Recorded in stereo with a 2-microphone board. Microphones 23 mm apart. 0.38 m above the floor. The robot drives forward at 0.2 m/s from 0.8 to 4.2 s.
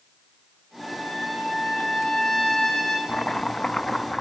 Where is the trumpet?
35° left (ahead or behind), 5.5 m; by 3.0 s 40° left (ahead or behind), 5.5 m.